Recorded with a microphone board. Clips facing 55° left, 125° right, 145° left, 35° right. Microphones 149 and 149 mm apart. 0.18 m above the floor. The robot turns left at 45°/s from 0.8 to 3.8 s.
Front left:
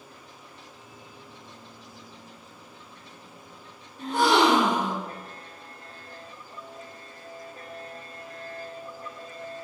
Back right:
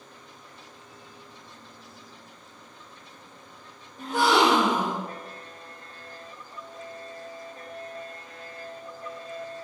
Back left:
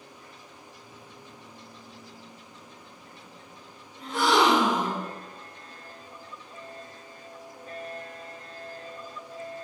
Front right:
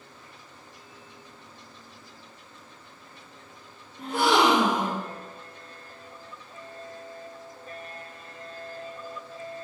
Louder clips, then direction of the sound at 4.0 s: Front left 1 dB, front right 1 dB; 50° right.